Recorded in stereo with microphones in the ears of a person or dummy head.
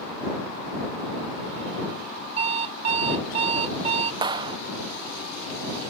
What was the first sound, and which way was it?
An alarm clock, 35° right (ahead or behind).